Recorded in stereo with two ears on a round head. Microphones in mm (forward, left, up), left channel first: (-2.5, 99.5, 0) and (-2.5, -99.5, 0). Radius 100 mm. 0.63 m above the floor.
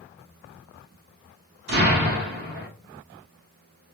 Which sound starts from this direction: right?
An explosion, at 1.7 s.